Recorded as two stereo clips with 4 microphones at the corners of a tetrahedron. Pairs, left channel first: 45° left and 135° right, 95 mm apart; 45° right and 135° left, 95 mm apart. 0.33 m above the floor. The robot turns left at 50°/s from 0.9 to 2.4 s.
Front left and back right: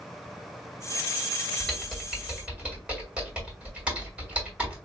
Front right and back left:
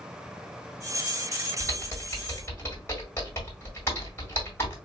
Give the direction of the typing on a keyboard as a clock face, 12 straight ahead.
1 o'clock.